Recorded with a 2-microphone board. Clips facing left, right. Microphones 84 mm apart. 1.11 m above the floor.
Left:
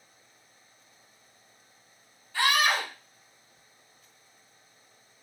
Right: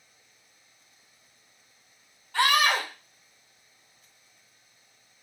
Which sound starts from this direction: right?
A scream, at 2.3 s.